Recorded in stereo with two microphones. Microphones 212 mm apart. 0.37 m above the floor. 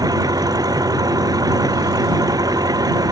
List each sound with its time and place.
0.0 s an engine running: 15° right (ahead or behind)